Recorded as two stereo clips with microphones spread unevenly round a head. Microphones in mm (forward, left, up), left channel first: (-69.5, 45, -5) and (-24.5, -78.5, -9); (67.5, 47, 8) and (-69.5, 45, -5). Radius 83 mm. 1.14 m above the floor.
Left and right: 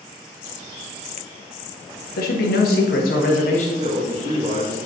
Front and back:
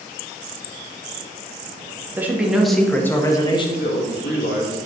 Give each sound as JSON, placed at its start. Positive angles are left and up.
{"t": 2.2, "sound": "a man speaking", "azimuth_deg": 105, "distance_m": 2.0}
{"t": 3.8, "sound": "a man speaking", "azimuth_deg": -10, "distance_m": 2.0}